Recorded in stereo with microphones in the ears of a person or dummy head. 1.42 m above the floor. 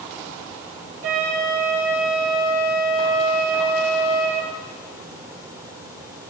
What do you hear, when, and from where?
1.0 s a flute: 65° right (ahead or behind), 6 m